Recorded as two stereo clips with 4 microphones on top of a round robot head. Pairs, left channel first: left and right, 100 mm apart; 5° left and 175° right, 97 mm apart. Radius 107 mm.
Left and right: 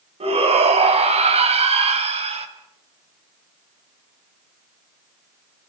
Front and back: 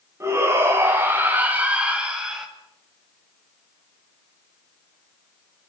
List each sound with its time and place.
0.2 s a shout: 110° right, 5 m; by 2.5 s 90° right, 4 m